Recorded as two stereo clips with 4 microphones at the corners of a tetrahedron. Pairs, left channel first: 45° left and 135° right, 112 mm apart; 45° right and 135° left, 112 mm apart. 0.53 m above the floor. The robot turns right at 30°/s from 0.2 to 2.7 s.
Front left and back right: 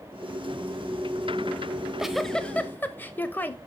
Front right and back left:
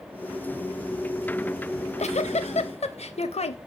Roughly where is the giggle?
Ahead right.